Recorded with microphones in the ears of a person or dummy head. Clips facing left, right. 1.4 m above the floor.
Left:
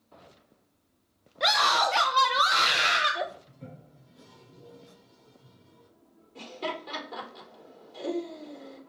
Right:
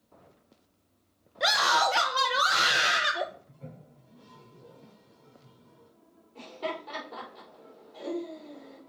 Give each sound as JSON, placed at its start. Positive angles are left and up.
{"t": 1.4, "sound": "a scream", "side_deg": -5, "distance_m": 0.9}
{"t": 3.5, "sound": "a toilet flushing", "side_deg": 30, "distance_m": 4.0}
{"t": 6.3, "sound": "laughter", "side_deg": 30, "distance_m": 4.0}